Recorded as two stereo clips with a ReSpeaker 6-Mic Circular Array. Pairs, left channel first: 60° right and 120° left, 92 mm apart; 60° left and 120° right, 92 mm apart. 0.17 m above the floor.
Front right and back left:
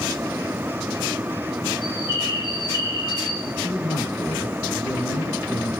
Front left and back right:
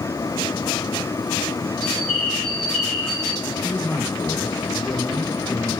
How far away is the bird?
About 9.5 m.